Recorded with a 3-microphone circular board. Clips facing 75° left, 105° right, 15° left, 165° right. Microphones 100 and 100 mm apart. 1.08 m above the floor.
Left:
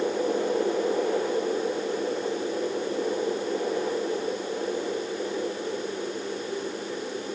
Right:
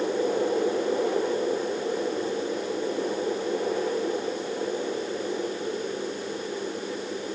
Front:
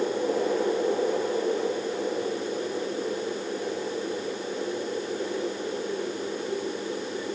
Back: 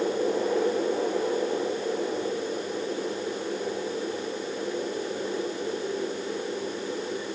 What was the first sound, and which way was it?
Only background noise.